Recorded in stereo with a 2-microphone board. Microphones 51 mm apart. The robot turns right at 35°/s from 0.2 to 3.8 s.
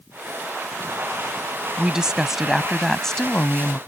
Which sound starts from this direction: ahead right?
A woman speaking, at 1.8 s.